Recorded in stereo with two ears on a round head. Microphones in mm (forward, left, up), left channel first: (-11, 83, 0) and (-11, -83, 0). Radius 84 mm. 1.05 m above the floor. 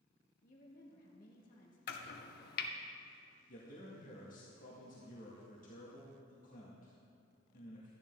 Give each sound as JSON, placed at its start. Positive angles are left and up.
{"t": 0.4, "sound": "a woman speaking", "side_deg": 50, "distance_m": 1.6}
{"t": 1.9, "sound": "chopping", "side_deg": 55, "distance_m": 0.9}
{"t": 3.5, "sound": "a man speaking", "side_deg": 50, "distance_m": 1.9}